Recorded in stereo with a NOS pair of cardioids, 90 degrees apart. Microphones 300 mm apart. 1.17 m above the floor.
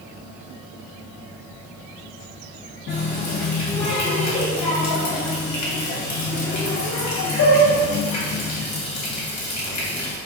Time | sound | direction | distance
2.9 | a running tap | 65° left | 1.0 m